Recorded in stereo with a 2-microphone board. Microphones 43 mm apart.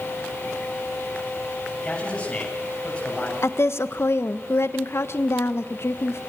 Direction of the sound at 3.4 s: 75° left (ahead or behind).